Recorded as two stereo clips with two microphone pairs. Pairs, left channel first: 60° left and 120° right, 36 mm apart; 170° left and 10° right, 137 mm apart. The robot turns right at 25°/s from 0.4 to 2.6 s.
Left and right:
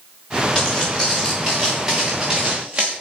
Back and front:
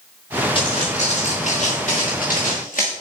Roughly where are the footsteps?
Behind left.